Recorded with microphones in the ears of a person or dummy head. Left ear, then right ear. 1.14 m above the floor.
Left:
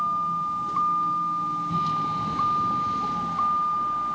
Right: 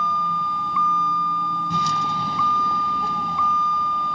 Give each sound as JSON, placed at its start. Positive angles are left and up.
{"t": 0.0, "sound": "a vehicle", "side_deg": -70}